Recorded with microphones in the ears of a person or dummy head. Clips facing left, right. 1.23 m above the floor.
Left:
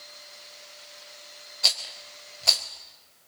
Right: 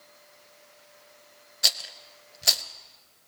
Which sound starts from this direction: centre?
A rattle, at 1.6 s.